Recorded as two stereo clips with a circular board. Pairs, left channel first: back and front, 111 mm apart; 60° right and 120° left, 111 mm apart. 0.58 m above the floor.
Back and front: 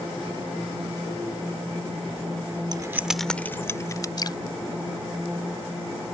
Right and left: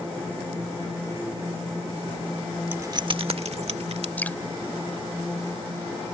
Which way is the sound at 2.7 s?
50° left.